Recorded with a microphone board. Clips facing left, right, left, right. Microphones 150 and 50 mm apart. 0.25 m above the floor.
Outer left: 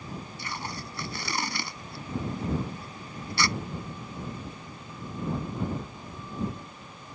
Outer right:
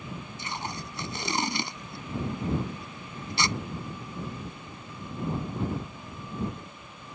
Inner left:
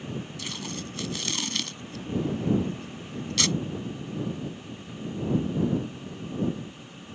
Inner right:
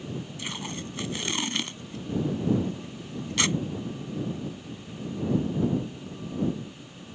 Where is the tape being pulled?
25° right (ahead or behind).